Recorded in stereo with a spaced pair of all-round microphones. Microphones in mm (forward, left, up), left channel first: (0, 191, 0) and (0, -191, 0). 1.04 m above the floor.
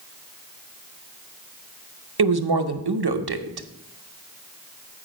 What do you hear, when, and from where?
2.2 s a woman speaking: 80° right, 0.8 m